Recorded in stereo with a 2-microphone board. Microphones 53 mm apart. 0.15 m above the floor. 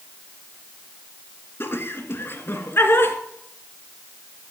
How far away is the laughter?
About 2 m.